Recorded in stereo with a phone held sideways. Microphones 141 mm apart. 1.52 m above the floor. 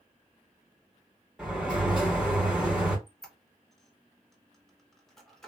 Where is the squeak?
5° left (ahead or behind), 0.7 m.